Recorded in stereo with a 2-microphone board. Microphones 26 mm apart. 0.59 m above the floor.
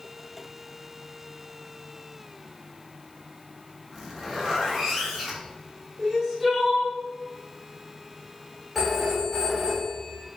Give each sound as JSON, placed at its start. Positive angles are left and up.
{"t": 3.9, "sound": "a zipper", "side_deg": -10, "distance_m": 1.1}
{"t": 6.0, "sound": "crying", "side_deg": -15, "distance_m": 1.1}
{"t": 8.8, "sound": "a phone ringing", "side_deg": -10, "distance_m": 1.3}